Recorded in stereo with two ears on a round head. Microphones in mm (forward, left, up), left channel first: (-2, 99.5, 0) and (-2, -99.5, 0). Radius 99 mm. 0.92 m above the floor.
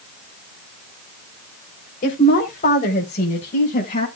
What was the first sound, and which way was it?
A woman speaking, 40° left (ahead or behind).